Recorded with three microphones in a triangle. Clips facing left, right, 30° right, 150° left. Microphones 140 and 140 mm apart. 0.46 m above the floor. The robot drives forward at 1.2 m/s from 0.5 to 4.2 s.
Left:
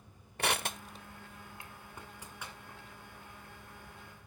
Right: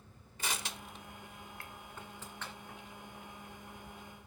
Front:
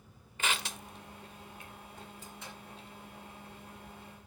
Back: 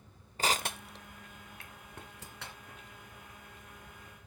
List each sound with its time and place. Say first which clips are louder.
0.4 s crushing: left 7 dB, back 4 dB; 100° left, 0.5 m; by 2.8 s 170° left, 3 m